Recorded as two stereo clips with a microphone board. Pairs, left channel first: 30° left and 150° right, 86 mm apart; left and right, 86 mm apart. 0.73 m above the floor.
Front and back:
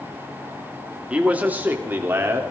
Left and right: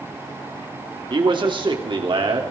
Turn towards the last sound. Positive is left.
turn(degrees=-90)